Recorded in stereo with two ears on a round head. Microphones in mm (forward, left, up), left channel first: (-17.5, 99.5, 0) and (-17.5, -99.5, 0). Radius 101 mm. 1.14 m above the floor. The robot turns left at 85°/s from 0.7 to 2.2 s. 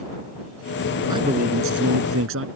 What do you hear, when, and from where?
1.1 s a man speaking: 15° right; by 2.5 s 110° right